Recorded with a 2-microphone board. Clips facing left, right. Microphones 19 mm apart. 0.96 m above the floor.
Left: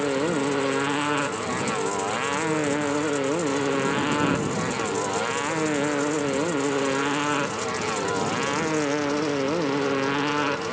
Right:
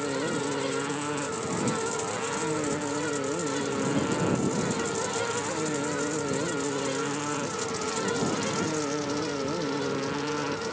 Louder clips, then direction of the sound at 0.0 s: Left 5 dB; 35° left (ahead or behind).